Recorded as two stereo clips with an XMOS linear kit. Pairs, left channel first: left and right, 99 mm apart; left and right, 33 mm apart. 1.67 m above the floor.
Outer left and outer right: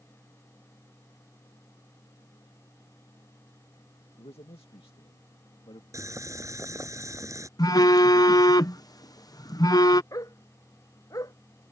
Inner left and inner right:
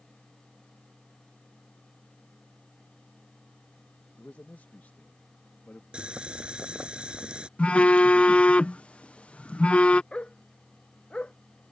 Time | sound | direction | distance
4.2 | a man speaking | 80° left | ?
5.9 | boiling | 30° right (ahead or behind) | ?
7.6 | a phone buzzing | 40° left (ahead or behind) | ?
10.1 | a dog barking | 35° left (ahead or behind) | ?